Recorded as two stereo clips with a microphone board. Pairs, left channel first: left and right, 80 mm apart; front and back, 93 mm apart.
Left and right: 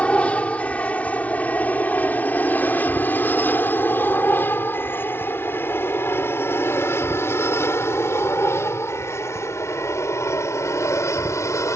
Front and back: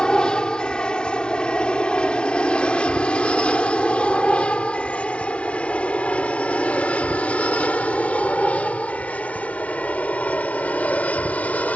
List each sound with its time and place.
0.0 s an aircraft: 60° left; by 11.8 s 65° left